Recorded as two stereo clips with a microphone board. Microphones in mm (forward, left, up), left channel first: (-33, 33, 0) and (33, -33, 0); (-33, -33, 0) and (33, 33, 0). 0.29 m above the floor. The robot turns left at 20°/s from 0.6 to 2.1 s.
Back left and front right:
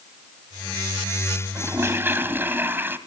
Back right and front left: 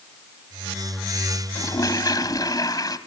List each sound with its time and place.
1.6 s a toilet flushing: 95° right, 1.6 m; by 3.0 s 105° right, 1.6 m